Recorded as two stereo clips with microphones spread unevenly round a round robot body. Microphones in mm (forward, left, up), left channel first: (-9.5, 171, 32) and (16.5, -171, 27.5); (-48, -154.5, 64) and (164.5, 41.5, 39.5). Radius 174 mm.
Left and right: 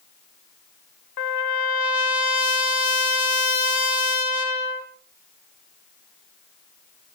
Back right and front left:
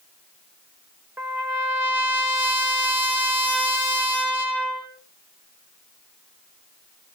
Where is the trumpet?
125° left, 2.5 m.